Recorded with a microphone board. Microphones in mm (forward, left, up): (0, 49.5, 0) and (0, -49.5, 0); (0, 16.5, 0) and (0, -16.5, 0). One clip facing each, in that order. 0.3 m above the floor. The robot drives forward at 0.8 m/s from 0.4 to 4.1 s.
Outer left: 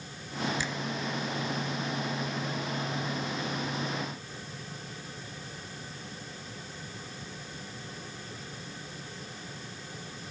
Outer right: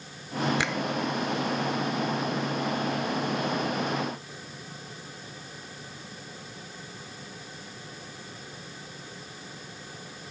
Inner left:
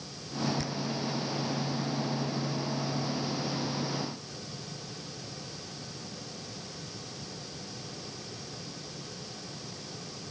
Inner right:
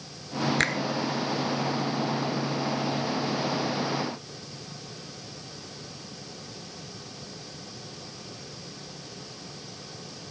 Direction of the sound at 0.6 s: 70° right (ahead or behind).